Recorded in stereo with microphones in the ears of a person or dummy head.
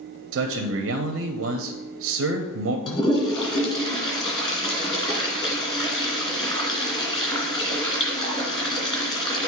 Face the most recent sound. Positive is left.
turn(degrees=25)  # may be behind; listen again after turning